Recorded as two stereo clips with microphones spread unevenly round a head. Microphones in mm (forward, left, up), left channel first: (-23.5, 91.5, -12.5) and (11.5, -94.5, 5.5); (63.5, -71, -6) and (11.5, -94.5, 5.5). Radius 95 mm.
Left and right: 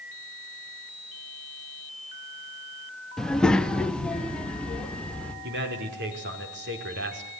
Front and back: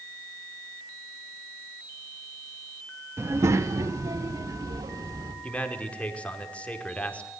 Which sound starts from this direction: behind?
A child speaking, at 3.2 s.